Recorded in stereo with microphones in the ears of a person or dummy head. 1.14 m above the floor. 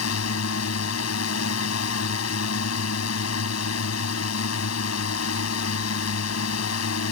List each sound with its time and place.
0.0 s a drone: 85° left